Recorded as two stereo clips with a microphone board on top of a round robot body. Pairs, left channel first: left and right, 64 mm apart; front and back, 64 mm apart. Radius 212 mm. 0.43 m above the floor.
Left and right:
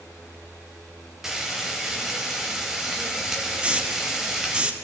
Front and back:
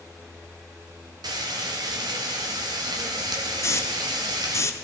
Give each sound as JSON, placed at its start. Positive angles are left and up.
{"t": 1.2, "sound": "frying", "azimuth_deg": -175, "distance_m": 0.5}
{"t": 3.6, "sound": "a hiss", "azimuth_deg": -25, "distance_m": 1.2}